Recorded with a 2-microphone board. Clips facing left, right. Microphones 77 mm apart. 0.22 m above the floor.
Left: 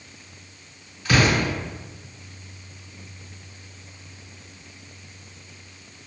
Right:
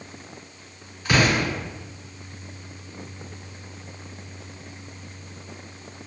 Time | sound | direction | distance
1.1 | an explosion | 15° right (ahead or behind) | 1.8 m